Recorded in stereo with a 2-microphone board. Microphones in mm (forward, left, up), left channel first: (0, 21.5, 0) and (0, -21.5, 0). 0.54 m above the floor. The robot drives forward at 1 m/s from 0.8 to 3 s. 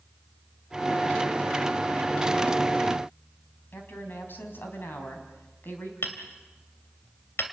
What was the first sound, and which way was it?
A woman speaking, 55° left (ahead or behind).